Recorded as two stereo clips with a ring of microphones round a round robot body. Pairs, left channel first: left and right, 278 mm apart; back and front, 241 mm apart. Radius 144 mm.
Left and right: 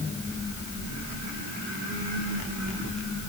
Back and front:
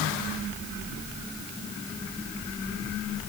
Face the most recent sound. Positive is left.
No sound to turn to.